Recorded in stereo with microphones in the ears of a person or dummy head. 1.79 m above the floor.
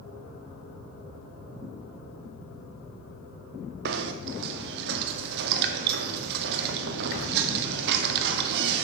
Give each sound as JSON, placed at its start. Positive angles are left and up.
{"t": 3.9, "sound": "knocking", "side_deg": -60, "distance_m": 0.8}